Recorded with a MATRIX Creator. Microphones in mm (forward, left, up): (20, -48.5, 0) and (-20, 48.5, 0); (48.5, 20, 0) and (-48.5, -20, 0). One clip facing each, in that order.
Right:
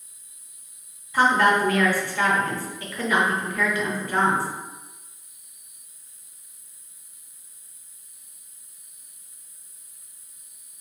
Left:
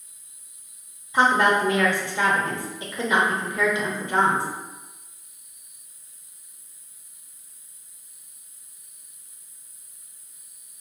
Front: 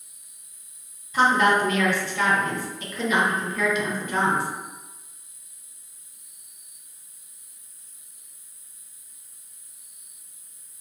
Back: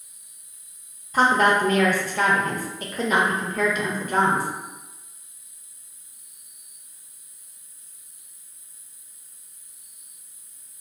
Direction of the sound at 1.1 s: 175° left.